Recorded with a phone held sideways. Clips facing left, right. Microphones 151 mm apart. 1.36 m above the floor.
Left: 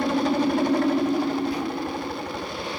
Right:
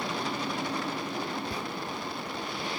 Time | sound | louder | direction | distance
0.0 | a helicopter | left 11 dB | 60° left (ahead or behind) | ?
1.5 | whispering | left 9 dB | 30° right (ahead or behind) | ?